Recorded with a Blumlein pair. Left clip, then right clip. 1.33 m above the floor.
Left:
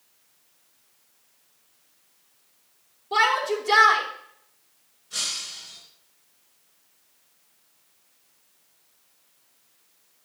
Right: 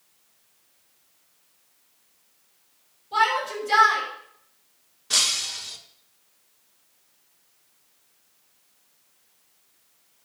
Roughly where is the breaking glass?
Ahead right.